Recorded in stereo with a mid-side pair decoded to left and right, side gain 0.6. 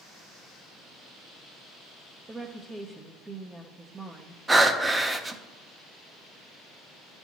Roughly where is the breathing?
Ahead.